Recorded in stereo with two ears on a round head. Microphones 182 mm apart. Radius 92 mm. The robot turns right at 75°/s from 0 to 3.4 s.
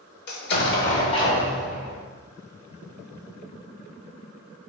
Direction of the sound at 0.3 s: 85° left.